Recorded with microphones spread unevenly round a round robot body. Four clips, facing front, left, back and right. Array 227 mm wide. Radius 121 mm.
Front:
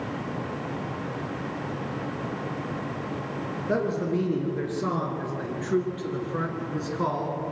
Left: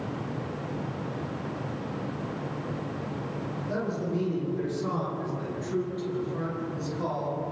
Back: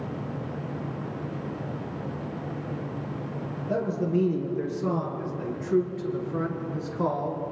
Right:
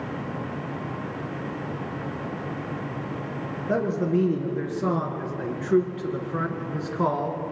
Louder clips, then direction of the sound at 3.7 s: Right 7 dB, even; 50° right.